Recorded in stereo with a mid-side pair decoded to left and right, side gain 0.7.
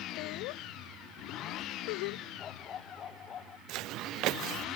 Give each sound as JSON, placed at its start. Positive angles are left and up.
{"t": 0.2, "sound": "laughter", "azimuth_deg": 65}
{"t": 2.4, "sound": "a dog barking", "azimuth_deg": 35}
{"t": 3.7, "sound": "footsteps", "azimuth_deg": -60}